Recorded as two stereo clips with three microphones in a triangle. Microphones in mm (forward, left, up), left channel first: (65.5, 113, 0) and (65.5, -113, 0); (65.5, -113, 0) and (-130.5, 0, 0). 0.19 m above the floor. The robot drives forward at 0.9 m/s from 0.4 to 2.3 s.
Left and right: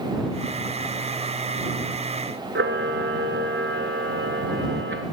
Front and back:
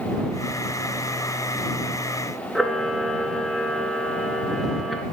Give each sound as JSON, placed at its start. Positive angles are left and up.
{"t": 2.5, "sound": "a camera shutter", "azimuth_deg": -120, "distance_m": 1.0}